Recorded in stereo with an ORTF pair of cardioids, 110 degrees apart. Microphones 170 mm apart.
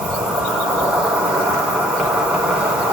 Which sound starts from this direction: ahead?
An insect, at 0.0 s.